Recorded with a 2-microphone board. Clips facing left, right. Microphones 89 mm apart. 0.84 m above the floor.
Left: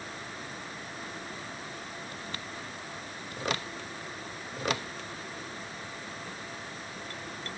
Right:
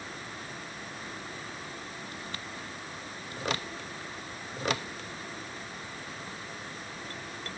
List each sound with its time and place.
Only background noise.